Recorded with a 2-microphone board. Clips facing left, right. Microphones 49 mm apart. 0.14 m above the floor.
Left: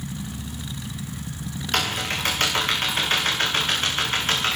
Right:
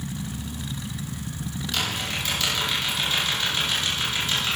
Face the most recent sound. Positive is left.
turn(degrees=45)  # may be behind; listen again after turning